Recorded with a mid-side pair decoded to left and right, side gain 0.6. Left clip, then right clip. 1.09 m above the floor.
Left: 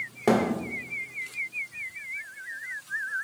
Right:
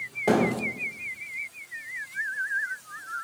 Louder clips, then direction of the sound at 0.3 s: Even; 35° left.